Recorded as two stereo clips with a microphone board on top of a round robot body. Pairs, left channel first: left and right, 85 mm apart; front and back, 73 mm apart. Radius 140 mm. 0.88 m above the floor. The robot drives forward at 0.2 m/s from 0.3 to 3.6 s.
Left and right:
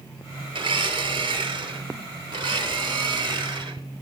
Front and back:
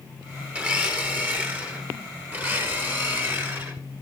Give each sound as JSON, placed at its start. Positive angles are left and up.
{"t": 0.6, "sound": "a blender", "azimuth_deg": -110, "distance_m": 3.0}